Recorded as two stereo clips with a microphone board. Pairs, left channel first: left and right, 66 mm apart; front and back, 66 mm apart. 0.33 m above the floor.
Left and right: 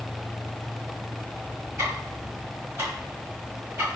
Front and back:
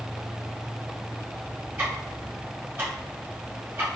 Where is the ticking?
130° right, 1.5 m.